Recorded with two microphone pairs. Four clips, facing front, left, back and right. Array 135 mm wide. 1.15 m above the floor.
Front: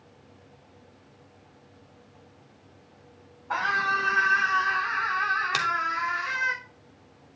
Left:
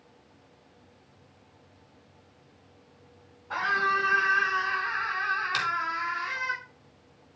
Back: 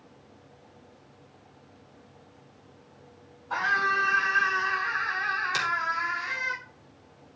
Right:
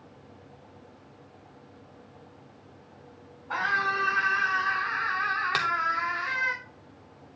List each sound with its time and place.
3.5 s a scream: 15° right, 8 m; by 6.5 s 45° right, 4.5 m
5.5 s a finger snap: 60° right, 3 m